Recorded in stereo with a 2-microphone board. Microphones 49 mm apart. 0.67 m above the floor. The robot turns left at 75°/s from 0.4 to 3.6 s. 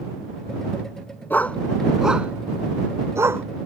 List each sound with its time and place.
1.3 s a dog barking: 40° left (ahead or behind); by 3.5 s 60° right (ahead or behind)